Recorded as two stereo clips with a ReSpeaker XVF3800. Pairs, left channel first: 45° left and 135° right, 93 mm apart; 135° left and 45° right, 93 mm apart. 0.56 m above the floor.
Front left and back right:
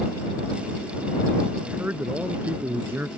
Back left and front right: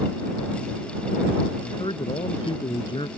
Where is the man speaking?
155° left.